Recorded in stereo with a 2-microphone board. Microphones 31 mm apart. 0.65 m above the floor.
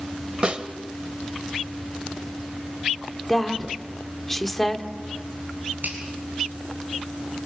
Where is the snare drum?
35° right (ahead or behind), 1.4 m.